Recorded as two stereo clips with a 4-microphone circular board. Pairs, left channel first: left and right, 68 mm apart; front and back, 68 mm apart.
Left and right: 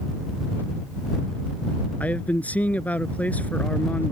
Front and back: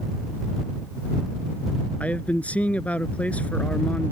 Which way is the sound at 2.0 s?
45° left.